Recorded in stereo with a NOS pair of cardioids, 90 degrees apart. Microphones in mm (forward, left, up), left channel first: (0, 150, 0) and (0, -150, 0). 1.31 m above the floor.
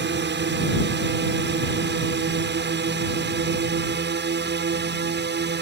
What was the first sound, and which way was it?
A drone, 40° right.